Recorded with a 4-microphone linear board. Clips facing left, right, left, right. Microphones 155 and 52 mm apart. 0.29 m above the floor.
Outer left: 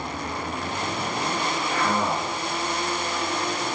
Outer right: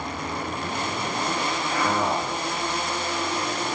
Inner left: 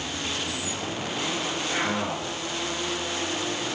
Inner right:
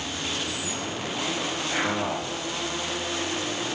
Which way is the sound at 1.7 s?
Centre (ahead or behind).